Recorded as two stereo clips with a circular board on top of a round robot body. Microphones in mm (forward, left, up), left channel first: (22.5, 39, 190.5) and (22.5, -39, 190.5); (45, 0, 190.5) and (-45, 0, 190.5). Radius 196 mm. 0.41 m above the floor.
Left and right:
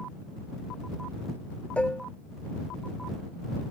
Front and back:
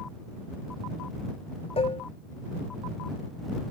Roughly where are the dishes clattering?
Ahead.